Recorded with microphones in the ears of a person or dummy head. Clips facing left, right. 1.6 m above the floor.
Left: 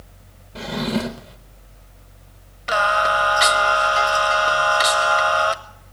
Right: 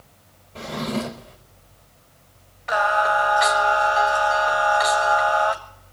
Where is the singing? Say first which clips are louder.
Even; 40° left (ahead or behind), 0.9 m.